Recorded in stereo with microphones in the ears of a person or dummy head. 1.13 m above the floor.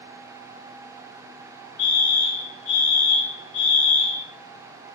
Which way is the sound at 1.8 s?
45° left (ahead or behind).